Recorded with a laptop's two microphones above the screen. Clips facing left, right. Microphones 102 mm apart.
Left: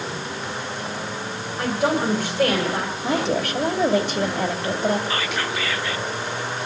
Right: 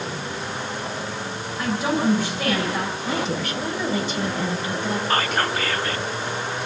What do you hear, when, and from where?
1.6 s a woman speaking: 55° left (ahead or behind), 4 m
3.0 s a woman speaking: 65° left (ahead or behind), 2.5 m
5.1 s whispering: 45° right (ahead or behind), 0.6 m